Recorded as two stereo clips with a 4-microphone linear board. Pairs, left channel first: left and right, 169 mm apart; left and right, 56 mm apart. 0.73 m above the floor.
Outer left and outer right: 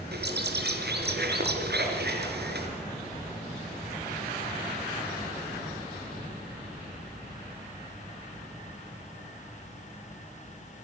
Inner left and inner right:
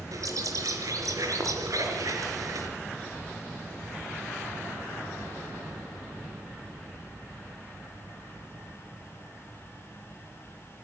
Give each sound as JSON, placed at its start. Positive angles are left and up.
{"t": 0.1, "sound": "a bird", "side_deg": -75, "distance_m": 4.0}